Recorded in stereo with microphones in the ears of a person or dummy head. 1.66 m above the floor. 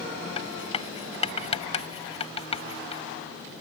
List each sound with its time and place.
0.4 s writing: 30° left (ahead or behind)